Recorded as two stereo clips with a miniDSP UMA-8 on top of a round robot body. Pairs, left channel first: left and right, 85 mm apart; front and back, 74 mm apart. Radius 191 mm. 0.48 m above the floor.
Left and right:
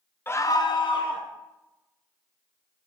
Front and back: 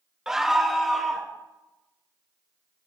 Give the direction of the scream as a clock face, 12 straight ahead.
8 o'clock.